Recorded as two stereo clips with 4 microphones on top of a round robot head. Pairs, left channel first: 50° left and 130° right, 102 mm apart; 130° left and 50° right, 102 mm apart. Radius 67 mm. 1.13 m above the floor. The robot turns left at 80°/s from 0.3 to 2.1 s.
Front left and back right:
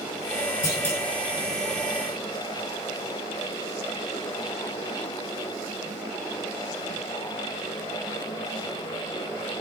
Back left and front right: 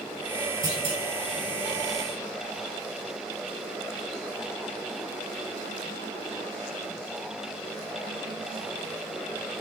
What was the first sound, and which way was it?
A clunk, 5° left.